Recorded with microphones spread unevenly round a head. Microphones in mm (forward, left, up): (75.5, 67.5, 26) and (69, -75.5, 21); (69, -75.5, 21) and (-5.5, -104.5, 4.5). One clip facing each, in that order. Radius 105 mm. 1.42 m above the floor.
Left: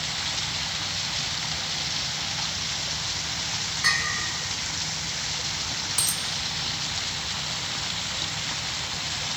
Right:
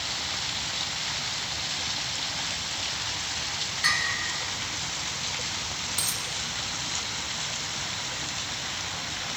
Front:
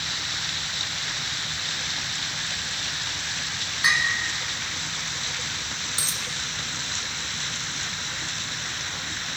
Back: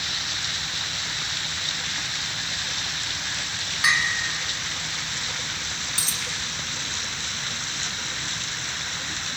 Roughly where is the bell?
Behind right.